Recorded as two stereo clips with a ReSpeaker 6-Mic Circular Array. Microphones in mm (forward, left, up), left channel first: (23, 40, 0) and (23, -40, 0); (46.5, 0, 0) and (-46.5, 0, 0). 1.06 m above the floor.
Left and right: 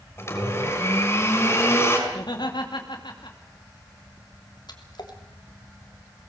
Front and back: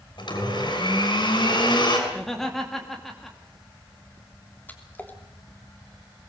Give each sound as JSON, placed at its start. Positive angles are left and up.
{"t": 0.2, "sound": "a blender", "azimuth_deg": 30, "distance_m": 6.0}
{"t": 2.1, "sound": "laughter", "azimuth_deg": 85, "distance_m": 2.5}
{"t": 4.7, "sound": "a splash", "azimuth_deg": 70, "distance_m": 3.0}